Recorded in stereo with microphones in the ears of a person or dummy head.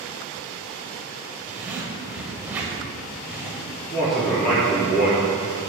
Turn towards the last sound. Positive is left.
turn(degrees=20)  # may be behind; listen again after turning